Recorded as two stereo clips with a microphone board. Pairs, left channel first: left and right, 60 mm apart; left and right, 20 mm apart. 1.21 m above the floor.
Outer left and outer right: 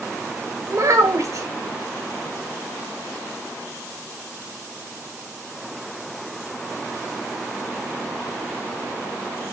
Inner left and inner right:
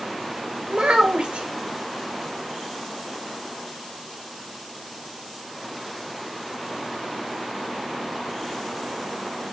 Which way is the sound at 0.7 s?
60° right (ahead or behind).